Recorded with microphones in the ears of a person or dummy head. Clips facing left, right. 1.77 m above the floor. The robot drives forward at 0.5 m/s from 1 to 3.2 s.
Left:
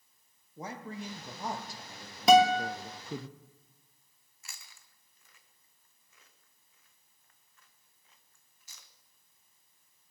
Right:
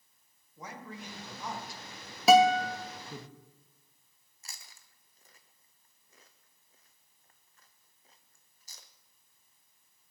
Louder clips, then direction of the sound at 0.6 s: Left 4 dB; 20° left (ahead or behind).